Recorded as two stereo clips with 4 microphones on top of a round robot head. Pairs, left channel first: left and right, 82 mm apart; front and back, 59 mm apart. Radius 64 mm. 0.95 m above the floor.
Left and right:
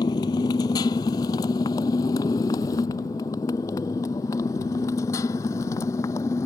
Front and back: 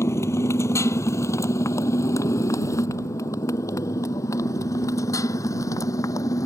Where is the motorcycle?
40° left; by 6.5 s 25° left.